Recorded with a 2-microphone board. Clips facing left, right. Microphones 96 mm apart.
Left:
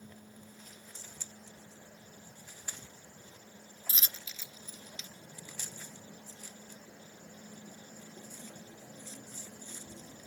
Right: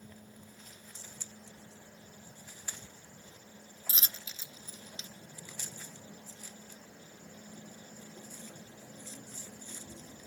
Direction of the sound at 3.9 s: 35° right (ahead or behind).